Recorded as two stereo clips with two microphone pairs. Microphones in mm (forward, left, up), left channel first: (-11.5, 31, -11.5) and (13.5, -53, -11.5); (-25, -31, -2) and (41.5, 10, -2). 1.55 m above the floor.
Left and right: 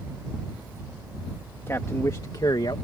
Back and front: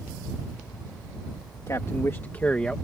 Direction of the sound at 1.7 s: 165° left.